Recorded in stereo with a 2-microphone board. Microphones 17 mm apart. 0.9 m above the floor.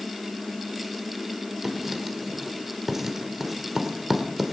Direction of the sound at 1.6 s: 20° right (ahead or behind).